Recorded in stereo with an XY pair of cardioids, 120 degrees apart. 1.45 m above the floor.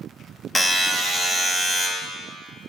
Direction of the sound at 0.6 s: 10° left.